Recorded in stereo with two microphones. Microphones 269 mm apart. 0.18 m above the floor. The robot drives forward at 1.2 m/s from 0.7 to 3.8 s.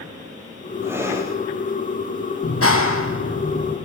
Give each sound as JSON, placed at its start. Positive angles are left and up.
{"t": 0.8, "sound": "breathing", "side_deg": -10, "distance_m": 5.0}
{"t": 2.4, "sound": "a clap", "side_deg": 55, "distance_m": 4.0}